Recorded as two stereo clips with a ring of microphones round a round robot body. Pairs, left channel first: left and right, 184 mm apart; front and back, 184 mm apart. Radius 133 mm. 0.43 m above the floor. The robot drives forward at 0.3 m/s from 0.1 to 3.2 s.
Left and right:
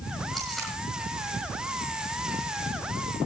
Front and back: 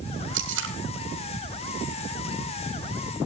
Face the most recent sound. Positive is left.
turn(degrees=180)